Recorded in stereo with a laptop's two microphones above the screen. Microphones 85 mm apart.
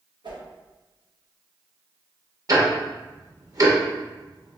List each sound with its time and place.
0.2 s a whoosh: 60° right (ahead or behind), 1.3 m
2.5 s ticking: 45° right (ahead or behind), 0.9 m